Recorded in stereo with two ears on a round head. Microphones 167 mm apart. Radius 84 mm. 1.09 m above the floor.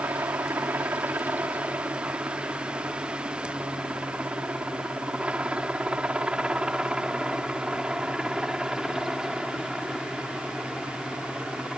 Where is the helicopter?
10° right (ahead or behind); by 11.8 s centre (ahead or behind).